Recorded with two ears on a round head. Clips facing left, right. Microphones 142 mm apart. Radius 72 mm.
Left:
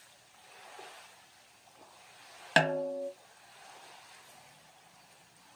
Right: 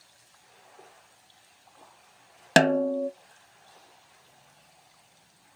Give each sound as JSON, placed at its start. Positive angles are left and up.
{"t": 2.6, "sound": "a snare drum", "side_deg": -45, "distance_m": 0.7}